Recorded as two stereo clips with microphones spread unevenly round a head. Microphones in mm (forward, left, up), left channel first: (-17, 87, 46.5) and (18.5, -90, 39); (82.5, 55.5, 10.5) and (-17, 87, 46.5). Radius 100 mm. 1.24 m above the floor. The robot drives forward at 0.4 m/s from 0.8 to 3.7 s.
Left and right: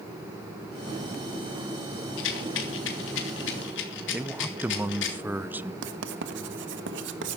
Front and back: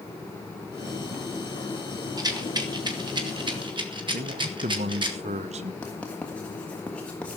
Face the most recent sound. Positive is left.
turn(degrees=-100)